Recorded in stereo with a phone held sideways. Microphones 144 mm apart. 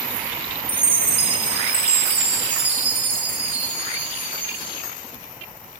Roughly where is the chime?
Centre.